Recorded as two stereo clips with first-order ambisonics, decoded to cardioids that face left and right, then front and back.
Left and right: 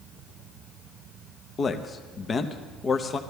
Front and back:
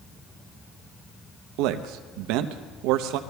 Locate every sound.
1.6 s a man speaking: 160° left, 0.7 m